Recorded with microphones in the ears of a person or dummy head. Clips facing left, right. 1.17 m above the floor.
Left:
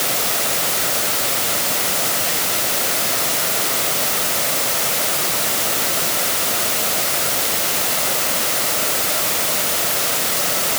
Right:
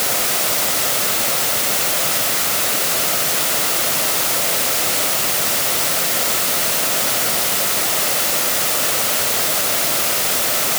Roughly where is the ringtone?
I don't hear a ringtone.